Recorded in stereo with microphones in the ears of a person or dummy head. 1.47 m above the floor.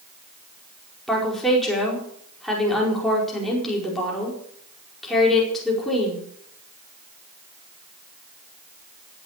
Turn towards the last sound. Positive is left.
turn(degrees=0)  # may be behind; listen again after turning